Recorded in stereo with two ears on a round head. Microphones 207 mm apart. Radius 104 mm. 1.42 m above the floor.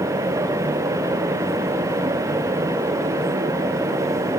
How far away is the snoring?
I don't hear snoring.